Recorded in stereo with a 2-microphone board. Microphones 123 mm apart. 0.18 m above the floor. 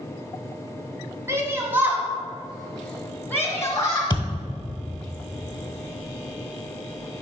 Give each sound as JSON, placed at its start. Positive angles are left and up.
{"t": 1.3, "sound": "a shout", "side_deg": -20, "distance_m": 1.6}
{"t": 4.1, "sound": "a thud", "side_deg": 35, "distance_m": 1.3}